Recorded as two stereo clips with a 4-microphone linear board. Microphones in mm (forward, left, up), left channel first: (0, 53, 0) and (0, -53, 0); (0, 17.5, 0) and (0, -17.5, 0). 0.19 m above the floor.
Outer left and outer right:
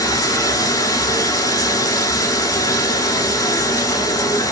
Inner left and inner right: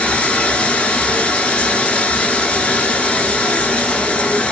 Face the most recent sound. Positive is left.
turn(degrees=35)  # may be behind; listen again after turning